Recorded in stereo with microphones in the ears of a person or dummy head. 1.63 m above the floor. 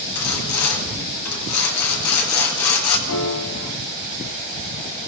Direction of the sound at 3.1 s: 85° left.